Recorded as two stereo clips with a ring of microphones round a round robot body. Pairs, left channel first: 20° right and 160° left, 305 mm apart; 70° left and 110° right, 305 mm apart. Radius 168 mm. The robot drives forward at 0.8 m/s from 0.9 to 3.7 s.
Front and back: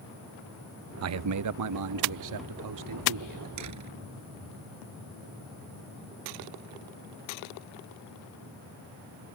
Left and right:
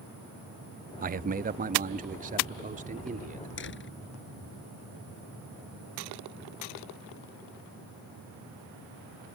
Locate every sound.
1.0 s a man speaking: 170° right; by 3.5 s straight behind
3.6 s a door slam: 120° left